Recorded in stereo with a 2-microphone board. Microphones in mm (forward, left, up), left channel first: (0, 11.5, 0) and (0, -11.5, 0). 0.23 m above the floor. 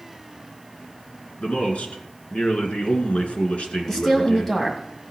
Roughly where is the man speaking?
Left.